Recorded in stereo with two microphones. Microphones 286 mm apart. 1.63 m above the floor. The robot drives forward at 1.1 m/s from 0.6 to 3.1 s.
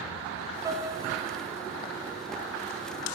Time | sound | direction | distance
0.7 | a piano | 10° right (ahead or behind) | 1.1 m